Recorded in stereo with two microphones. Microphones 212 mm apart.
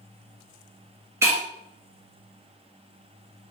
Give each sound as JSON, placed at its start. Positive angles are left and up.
{"t": 1.2, "sound": "breaking glass", "side_deg": -15, "distance_m": 1.0}